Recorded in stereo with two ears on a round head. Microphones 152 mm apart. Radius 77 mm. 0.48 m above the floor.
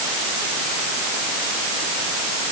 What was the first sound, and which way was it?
Only background noise.